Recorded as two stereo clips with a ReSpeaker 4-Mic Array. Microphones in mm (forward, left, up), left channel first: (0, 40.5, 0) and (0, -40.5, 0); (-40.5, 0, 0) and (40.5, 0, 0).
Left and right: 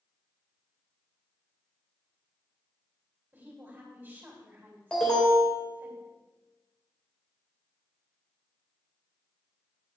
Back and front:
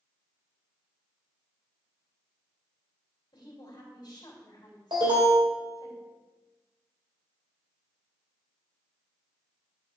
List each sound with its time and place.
3.3 s a woman speaking: 155° right, 3 m
4.9 s an alarm: 10° left, 3.5 m